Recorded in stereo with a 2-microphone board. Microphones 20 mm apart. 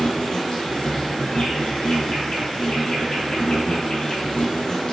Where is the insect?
50° left (ahead or behind), 0.8 m.